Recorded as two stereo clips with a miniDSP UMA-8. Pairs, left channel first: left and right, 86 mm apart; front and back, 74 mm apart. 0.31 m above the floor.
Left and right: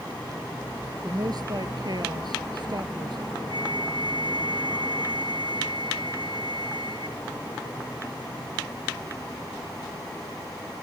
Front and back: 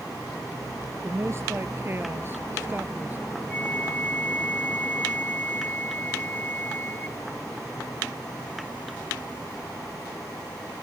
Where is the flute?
65° right.